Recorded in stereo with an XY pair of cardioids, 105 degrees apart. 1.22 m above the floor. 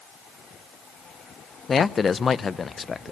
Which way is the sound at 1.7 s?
40° left.